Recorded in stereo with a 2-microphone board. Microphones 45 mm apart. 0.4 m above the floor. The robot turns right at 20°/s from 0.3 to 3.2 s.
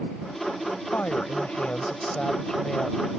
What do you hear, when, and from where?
0.9 s a woman speaking: 125° left; by 3.2 s 170° left